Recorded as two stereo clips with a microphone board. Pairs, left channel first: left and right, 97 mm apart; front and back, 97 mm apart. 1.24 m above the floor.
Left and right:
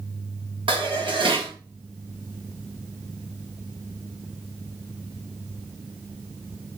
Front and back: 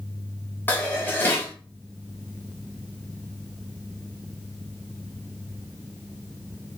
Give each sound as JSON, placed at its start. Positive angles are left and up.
{"t": 0.7, "sound": "dishes clattering", "azimuth_deg": -65, "distance_m": 1.2}